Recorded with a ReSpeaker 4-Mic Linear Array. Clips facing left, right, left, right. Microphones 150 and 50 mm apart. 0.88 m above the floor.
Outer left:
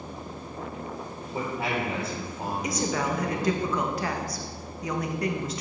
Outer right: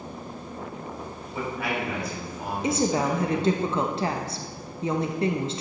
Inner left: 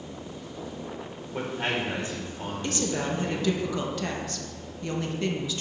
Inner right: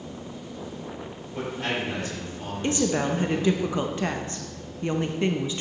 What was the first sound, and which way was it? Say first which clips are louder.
A man speaking: even, even; 30° left (ahead or behind).